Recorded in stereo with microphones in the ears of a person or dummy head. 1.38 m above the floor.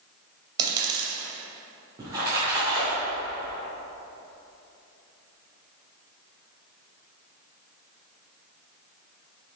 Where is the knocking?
No knocking in this recording.